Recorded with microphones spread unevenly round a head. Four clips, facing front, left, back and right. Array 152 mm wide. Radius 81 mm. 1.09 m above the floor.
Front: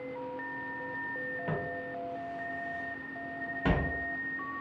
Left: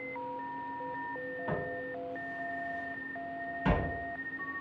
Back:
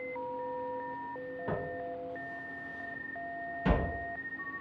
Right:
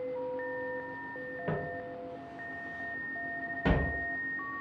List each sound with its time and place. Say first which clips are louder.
1.5 s footsteps: right 1 dB, back 1 dB; 105° right, 1.1 m; by 4.0 s 40° right, 1.9 m